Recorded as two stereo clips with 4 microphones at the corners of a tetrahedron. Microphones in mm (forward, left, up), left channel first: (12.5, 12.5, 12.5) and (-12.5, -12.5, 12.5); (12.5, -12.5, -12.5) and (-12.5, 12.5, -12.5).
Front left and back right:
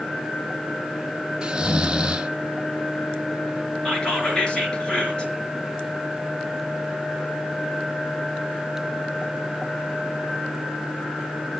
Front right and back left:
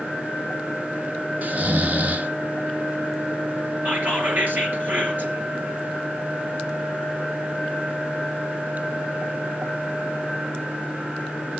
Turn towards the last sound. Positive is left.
turn(degrees=105)